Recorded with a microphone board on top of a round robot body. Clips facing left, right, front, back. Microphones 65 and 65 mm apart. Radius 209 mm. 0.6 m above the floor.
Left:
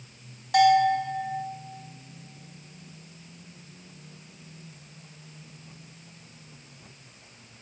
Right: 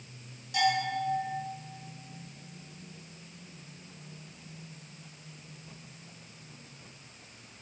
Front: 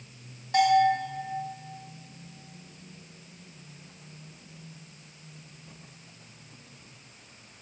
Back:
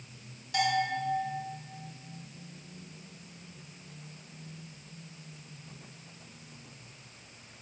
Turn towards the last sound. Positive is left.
turn(degrees=60)